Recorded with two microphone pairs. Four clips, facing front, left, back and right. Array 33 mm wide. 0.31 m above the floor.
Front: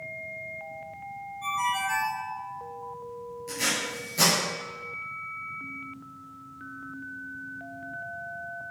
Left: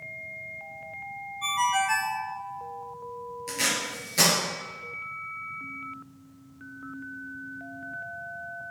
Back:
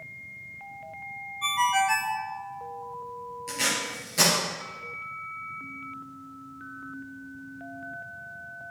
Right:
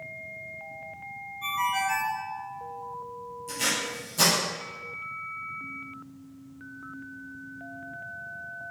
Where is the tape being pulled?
110° left, 4.5 m.